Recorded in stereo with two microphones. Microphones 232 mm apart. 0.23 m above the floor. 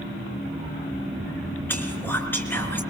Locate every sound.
1.7 s whispering: 10° left (ahead or behind), 4 m